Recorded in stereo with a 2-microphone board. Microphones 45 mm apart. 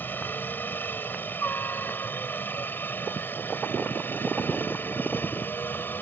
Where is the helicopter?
45° left (ahead or behind); by 6.0 s 50° left (ahead or behind).